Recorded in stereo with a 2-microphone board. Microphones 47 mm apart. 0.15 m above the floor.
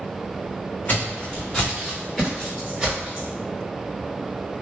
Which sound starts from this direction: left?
Footsteps, at 0.9 s.